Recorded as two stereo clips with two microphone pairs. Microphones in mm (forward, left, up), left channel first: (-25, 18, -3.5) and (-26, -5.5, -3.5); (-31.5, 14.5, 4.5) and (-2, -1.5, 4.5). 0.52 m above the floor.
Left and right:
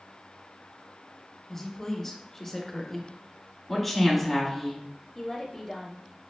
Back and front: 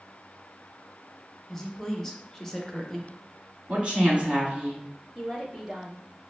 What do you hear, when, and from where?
1.5 s a woman speaking: 100° left, 0.6 m
3.7 s a woman speaking: 5° right, 1.4 m
5.2 s a woman speaking: 25° left, 1.3 m